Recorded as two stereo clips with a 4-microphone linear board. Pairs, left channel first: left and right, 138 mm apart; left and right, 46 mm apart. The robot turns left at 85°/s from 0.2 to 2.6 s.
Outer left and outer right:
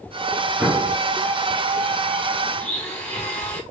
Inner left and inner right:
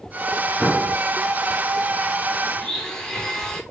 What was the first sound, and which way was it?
An explosion, 175° right.